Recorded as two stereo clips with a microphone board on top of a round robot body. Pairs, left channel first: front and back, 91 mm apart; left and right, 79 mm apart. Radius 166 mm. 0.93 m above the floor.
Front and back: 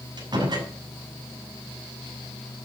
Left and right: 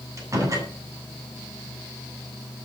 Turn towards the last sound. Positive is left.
turn(degrees=-140)